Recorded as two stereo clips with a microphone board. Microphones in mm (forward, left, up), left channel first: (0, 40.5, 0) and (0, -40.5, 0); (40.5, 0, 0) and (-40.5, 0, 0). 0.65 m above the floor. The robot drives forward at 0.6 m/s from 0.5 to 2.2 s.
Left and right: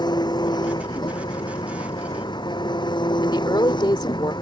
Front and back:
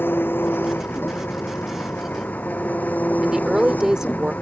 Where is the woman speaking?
100° left.